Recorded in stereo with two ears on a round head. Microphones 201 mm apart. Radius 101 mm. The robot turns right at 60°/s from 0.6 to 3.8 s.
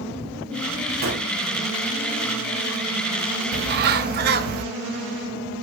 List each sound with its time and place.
1.0 s a gunshot: 45° right (ahead or behind), 2.5 m; by 1.3 s 30° right (ahead or behind), 2.5 m
3.5 s a bird: 50° right (ahead or behind), 1.0 m; by 4.7 s 45° right (ahead or behind), 1.0 m